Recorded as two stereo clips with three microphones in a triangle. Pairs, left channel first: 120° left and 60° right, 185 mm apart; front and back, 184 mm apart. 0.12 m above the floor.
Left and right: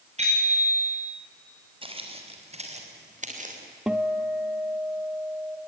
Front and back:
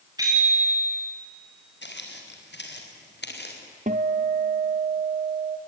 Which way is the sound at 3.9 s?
145° right.